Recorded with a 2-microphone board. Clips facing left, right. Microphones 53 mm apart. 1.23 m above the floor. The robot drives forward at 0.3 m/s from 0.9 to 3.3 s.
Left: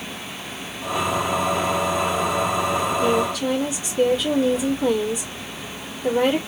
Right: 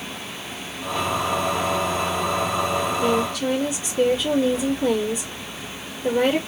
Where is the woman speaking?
Centre (ahead or behind), 2 m.